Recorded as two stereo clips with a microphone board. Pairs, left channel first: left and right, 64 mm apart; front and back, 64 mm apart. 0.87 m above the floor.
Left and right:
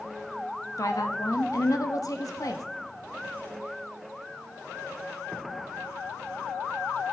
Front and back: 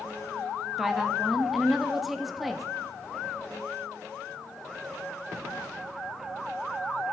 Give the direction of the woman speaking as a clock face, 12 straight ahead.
9 o'clock.